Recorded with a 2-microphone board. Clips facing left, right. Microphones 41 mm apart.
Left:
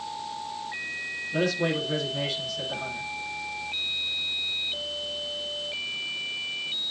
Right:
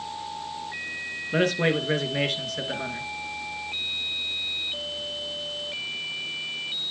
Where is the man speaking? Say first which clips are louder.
Right 3 dB; 55° right (ahead or behind), 3 m.